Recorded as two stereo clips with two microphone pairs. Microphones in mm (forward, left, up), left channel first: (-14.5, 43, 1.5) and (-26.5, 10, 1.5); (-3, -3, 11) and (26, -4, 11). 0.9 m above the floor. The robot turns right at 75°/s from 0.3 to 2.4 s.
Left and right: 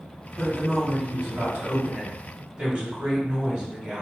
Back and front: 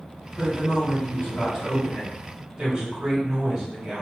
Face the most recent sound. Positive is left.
turn(degrees=-65)